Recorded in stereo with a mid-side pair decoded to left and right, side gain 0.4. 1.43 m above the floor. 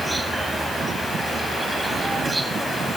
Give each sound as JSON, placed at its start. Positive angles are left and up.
{"t": 0.0, "sound": "an insect", "azimuth_deg": -20}